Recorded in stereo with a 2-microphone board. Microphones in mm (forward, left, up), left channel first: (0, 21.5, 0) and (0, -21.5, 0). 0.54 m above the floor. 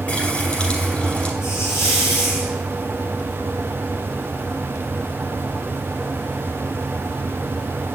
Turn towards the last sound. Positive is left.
turn(degrees=75)  # may be behind; listen again after turning